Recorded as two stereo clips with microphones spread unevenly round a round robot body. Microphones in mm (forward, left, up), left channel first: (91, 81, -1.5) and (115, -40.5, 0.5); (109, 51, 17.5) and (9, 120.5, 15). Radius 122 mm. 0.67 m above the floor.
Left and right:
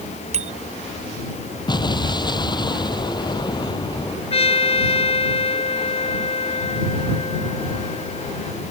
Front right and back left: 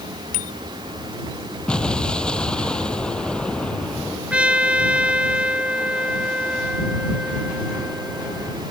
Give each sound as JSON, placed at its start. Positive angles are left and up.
{"t": 0.3, "sound": "a bicycle bell", "azimuth_deg": -55}
{"t": 1.7, "sound": "an explosion", "azimuth_deg": 50}
{"t": 4.3, "sound": "a trumpet", "azimuth_deg": 65}